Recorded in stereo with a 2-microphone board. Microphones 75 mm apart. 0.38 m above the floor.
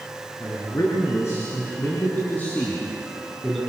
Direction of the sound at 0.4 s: 45° left (ahead or behind).